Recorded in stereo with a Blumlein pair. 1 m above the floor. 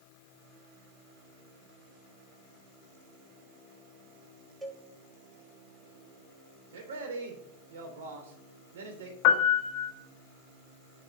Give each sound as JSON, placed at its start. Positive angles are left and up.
{"t": 4.6, "sound": "a cowbell", "azimuth_deg": -5, "distance_m": 1.5}
{"t": 6.7, "sound": "a man speaking", "azimuth_deg": -60, "distance_m": 3.0}
{"t": 9.2, "sound": "a piano", "azimuth_deg": 40, "distance_m": 1.1}